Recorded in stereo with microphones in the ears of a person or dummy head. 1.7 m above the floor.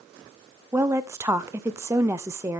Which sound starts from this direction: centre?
A woman speaking, at 0.7 s.